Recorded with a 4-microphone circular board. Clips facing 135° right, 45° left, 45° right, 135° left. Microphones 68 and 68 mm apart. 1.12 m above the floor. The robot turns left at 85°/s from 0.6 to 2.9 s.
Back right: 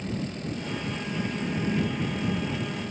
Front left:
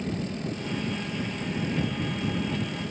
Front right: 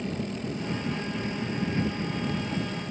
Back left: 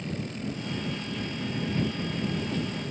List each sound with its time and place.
0.0 s a helicopter: 30° right; by 2.9 s 135° left